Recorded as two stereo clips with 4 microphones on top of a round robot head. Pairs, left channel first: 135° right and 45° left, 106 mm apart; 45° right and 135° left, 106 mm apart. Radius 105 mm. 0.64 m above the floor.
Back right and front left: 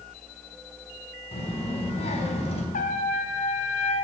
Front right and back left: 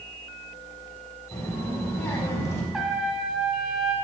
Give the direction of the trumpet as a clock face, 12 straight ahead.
5 o'clock.